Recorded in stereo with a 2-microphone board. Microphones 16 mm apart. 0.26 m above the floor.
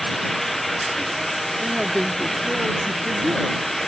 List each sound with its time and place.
1.6 s a woman speaking: 85° right; by 3.6 s 75° right (ahead or behind)